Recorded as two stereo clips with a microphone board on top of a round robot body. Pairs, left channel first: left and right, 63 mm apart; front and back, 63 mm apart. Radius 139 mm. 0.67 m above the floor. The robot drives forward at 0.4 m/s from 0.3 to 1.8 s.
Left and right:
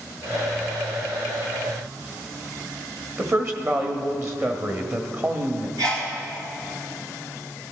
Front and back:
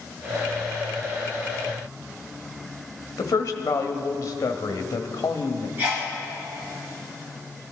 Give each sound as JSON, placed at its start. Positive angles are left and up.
{"t": 3.2, "sound": "a woman speaking", "azimuth_deg": -45, "distance_m": 1.4}
{"t": 5.8, "sound": "a sneeze", "azimuth_deg": -115, "distance_m": 5.5}